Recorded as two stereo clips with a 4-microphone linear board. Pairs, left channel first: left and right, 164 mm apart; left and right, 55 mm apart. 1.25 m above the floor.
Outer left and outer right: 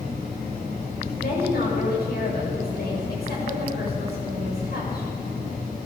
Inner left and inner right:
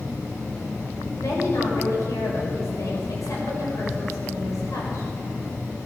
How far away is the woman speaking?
About 7 m.